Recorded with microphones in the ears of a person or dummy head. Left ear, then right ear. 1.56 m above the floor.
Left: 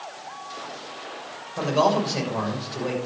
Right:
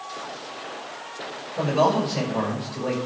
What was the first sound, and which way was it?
A man speaking, 40° left (ahead or behind).